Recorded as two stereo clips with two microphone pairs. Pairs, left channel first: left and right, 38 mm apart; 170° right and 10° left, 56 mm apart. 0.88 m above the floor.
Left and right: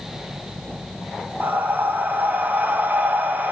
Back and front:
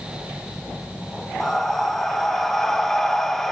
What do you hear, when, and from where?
1.4 s breathing: 85° right, 1.2 m